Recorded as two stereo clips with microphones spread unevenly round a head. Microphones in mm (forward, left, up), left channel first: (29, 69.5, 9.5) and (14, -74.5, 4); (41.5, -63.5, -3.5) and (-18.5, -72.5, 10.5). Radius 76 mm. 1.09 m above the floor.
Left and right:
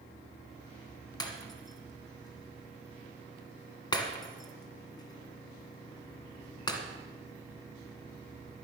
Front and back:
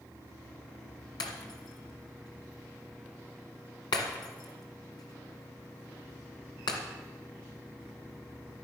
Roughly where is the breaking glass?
Ahead left.